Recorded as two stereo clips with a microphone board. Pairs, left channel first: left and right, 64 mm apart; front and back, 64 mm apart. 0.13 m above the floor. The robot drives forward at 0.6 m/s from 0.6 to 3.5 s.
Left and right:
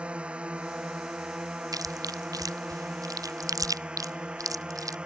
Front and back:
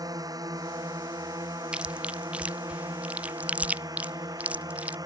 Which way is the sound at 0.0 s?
165° right.